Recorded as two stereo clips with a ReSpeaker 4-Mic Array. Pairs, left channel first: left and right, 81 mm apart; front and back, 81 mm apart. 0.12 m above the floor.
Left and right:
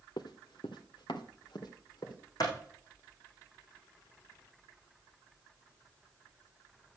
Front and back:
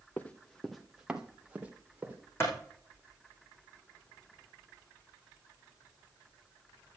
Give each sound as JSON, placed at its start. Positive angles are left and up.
{"t": 0.2, "sound": "running footsteps", "azimuth_deg": 65, "distance_m": 1.1}
{"t": 2.4, "sound": "a clap", "azimuth_deg": 55, "distance_m": 5.0}